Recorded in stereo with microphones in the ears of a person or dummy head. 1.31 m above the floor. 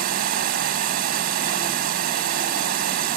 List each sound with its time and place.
0.0 s running water: 60° right (ahead or behind)